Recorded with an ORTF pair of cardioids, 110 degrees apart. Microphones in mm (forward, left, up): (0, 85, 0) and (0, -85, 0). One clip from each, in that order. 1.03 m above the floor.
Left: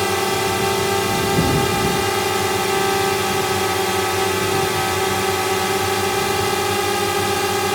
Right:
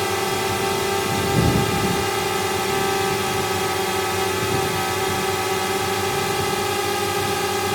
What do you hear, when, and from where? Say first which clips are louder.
0.0 s a drone: left 3 dB; 20° left